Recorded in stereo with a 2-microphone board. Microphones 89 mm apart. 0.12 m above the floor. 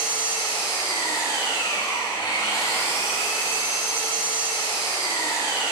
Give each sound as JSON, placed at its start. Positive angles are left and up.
{"t": 0.0, "sound": "an engine running", "side_deg": 55, "distance_m": 3.5}